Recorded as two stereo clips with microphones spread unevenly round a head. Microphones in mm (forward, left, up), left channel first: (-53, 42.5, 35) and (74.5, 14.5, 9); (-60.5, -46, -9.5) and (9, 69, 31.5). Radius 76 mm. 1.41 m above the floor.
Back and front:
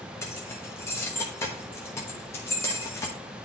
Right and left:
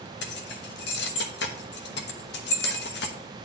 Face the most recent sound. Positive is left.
turn(degrees=-125)